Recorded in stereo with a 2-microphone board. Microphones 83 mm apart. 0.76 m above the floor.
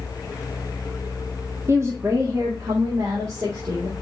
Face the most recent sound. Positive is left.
turn(degrees=-40)  # may be behind; listen again after turning